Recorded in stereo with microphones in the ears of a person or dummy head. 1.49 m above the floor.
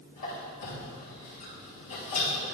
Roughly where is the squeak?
Left.